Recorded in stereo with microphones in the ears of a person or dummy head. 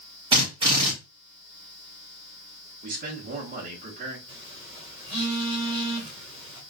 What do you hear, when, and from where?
0.3 s a drill: 25° right (ahead or behind), 1.9 m
2.8 s a man speaking: 45° right (ahead or behind), 1.6 m
4.3 s a phone buzzing: 25° right (ahead or behind), 2.5 m